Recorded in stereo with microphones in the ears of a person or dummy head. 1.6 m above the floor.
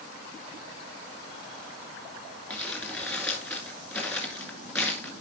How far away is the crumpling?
About 1.8 m.